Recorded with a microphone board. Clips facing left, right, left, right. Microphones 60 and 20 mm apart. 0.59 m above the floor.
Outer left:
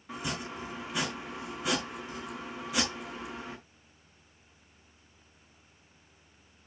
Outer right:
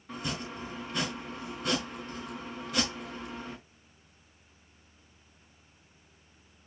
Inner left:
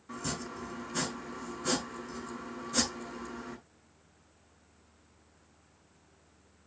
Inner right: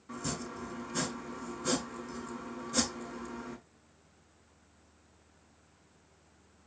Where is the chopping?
5° left (ahead or behind), 4.5 m.